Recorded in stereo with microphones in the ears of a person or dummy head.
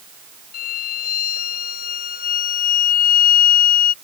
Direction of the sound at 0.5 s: 60° left (ahead or behind).